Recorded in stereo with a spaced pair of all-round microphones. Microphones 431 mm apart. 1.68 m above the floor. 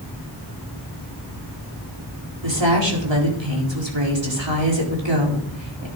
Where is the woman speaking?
80° right, 4.5 m.